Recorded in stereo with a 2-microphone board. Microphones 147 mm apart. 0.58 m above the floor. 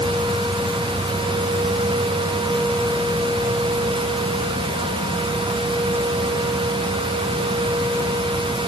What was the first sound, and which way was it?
Only background noise.